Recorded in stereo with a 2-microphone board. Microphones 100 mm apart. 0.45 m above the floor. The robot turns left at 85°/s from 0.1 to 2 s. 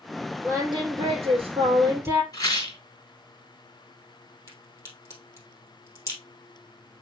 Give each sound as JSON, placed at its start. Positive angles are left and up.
{"t": 0.4, "sound": "singing", "azimuth_deg": -20, "distance_m": 2.0}
{"t": 2.3, "sound": "a rattle", "side_deg": 40, "distance_m": 5.0}
{"t": 4.5, "sound": "a crack", "side_deg": 30, "distance_m": 3.0}